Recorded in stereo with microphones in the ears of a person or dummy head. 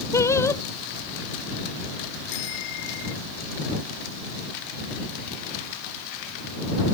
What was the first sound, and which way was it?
Singing, 20° left (ahead or behind).